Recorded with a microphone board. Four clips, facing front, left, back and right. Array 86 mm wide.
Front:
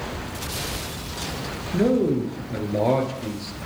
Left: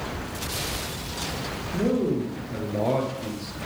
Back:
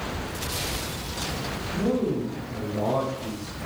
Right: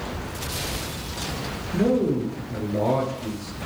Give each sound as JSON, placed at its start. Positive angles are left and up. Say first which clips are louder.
{"t": 1.7, "sound": "a man speaking", "louder": "right 3 dB, front 5 dB", "azimuth_deg": -15, "distance_m": 2.0}